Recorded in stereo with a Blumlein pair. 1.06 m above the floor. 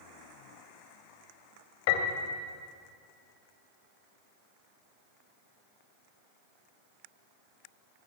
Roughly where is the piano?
Ahead left.